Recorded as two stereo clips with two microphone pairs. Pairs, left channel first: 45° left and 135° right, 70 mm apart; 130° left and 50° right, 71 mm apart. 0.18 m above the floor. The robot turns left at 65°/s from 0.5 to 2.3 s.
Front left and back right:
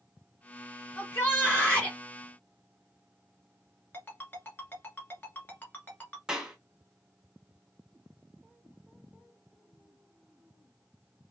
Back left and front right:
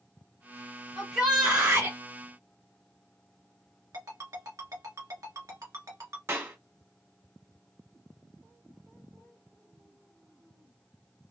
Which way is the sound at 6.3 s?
60° right.